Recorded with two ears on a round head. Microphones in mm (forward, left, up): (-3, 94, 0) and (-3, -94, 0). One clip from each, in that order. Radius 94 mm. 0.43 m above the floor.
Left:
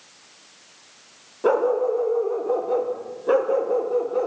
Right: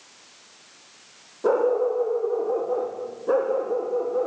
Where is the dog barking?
85° left, 5 m; by 4.3 s 75° left (ahead or behind), 4 m.